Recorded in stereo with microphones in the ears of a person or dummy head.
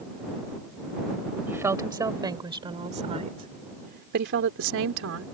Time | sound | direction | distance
1.5 | a woman speaking | 10° right (ahead or behind) | ?